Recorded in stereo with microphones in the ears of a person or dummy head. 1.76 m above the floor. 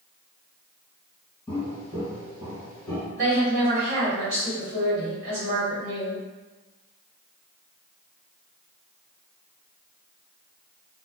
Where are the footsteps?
20° left (ahead or behind), 1.8 m; by 3.0 s 5° right (ahead or behind), 1.9 m.